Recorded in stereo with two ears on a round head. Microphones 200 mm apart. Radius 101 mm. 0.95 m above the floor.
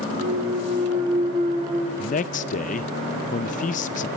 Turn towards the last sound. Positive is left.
turn(degrees=35)  # may be behind; listen again after turning